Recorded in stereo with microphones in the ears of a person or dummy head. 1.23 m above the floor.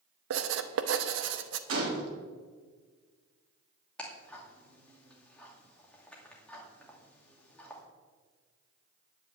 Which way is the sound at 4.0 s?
10° left (ahead or behind).